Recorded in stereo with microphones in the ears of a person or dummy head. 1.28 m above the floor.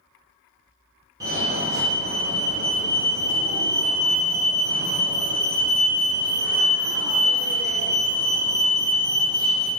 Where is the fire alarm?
20° right (ahead or behind), 0.8 m.